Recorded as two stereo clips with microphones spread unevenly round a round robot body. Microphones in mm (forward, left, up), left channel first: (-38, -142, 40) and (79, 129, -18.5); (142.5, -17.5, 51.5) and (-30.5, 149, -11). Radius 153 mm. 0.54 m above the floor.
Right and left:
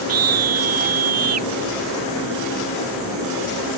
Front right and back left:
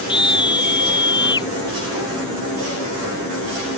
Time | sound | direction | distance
0.1 | a scream | 25° left | ?